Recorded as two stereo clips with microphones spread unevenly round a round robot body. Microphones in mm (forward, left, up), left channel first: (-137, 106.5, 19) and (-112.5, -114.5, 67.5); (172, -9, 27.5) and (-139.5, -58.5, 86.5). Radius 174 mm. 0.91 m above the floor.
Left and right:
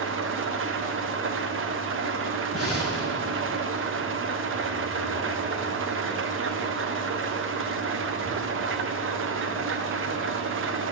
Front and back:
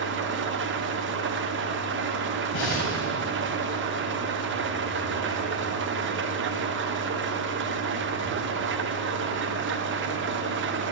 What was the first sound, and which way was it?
An engine running, 115° right.